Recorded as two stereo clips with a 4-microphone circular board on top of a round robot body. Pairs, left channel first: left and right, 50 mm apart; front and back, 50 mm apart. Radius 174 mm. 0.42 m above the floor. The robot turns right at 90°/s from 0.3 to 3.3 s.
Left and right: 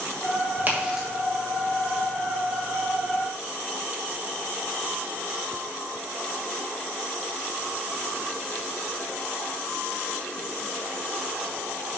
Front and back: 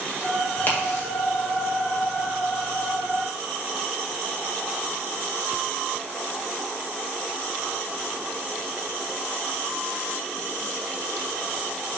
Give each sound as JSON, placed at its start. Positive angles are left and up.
{"t": 0.6, "sound": "a crack", "azimuth_deg": -50, "distance_m": 2.5}